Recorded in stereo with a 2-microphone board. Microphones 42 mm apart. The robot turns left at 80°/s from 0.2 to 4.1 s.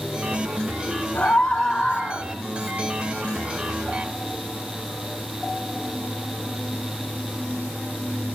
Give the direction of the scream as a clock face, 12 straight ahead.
11 o'clock.